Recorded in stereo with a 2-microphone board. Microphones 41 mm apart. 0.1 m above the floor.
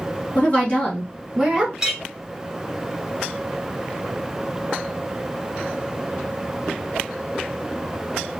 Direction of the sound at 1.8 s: 15° right (ahead or behind).